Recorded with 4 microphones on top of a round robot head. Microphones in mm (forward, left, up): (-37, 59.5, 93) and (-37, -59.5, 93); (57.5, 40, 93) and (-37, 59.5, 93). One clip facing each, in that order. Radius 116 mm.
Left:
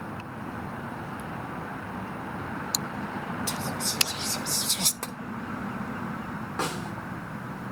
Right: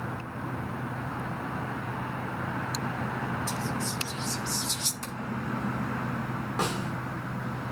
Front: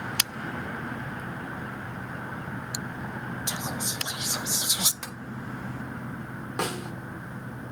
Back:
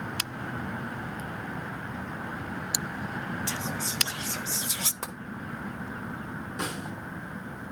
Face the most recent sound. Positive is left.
turn(degrees=-10)